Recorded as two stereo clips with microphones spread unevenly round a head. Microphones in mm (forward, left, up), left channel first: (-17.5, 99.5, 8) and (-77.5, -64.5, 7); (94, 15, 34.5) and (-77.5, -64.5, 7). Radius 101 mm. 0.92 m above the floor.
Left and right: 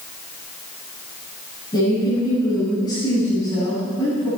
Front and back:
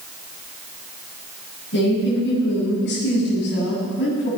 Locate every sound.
1.7 s a woman speaking: straight ahead, 7.5 m